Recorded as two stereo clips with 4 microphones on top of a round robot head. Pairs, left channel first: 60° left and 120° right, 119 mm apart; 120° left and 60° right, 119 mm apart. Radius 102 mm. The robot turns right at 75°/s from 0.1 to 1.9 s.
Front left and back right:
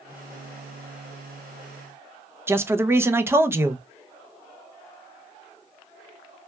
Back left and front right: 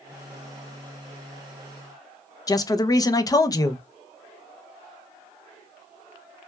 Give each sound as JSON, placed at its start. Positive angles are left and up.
{"t": 2.5, "sound": "a man speaking", "azimuth_deg": 175, "distance_m": 0.5}